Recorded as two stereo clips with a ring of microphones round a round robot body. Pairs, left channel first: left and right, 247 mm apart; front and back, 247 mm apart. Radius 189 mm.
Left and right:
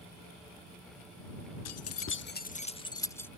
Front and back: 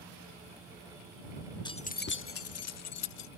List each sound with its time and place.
1.6 s keys jangling: 75° left; by 3.3 s 5° left